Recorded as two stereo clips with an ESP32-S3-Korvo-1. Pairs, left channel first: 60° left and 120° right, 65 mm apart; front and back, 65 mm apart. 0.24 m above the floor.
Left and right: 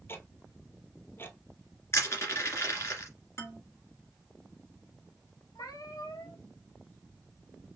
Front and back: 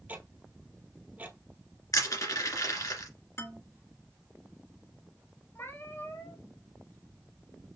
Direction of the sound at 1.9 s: 20° left.